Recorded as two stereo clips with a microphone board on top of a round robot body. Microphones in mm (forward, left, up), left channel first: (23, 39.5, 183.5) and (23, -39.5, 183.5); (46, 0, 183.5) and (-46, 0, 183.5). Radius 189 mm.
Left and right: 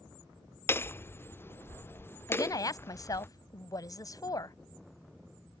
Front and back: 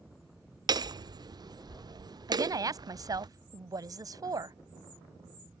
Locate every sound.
0.7 s hammering: 145° left
2.3 s a woman speaking: 130° left